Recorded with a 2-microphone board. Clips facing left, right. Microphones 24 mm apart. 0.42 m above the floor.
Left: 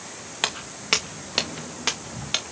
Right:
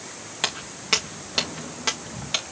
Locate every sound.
0.4 s footsteps: 10° left (ahead or behind), 1.6 m